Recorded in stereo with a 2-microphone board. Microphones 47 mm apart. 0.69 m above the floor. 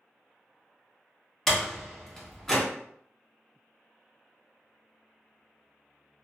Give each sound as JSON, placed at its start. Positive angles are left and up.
{"t": 1.5, "sound": "a door slam", "side_deg": 5, "distance_m": 0.8}